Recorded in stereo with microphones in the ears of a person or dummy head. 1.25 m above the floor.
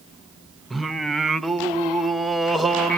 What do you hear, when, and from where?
0.7 s singing: centre (ahead or behind), 0.8 m